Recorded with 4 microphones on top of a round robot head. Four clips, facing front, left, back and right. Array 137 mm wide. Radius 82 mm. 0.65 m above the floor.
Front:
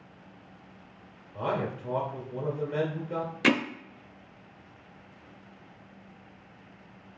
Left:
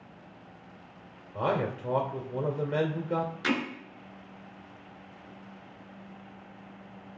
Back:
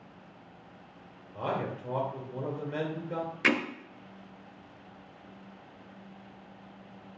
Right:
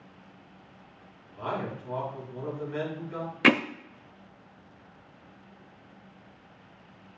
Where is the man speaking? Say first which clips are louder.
Left 4 dB, front 2 dB; 85° left, 2.5 m.